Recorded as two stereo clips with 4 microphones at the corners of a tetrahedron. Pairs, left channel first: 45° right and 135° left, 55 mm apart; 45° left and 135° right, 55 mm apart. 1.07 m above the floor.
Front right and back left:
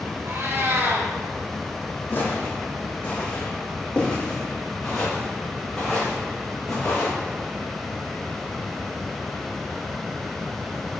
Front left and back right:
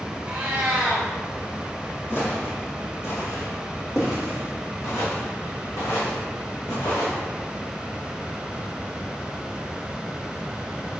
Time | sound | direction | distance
0.2 | a cat meowing | 160° left | 1.9 m
2.1 | footsteps | 5° left | 2.5 m